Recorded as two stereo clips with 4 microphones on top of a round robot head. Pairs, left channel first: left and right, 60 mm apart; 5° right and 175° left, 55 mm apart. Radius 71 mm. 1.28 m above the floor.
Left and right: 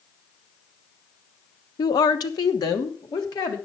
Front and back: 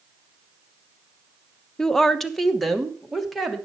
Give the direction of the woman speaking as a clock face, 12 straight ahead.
10 o'clock.